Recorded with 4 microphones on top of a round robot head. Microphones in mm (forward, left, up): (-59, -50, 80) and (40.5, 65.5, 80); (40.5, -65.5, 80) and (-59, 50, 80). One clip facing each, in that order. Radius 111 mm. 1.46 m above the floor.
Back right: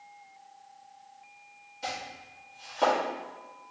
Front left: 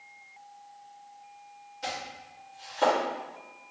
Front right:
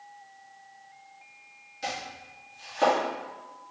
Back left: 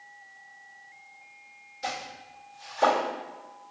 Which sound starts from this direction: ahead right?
Chopping, at 1.8 s.